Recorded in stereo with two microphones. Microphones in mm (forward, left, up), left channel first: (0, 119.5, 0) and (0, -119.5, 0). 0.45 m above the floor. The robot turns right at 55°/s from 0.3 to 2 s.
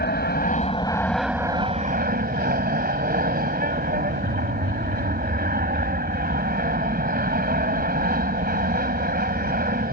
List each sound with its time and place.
0.0 s an aircraft: 130° left; by 9.9 s 135° right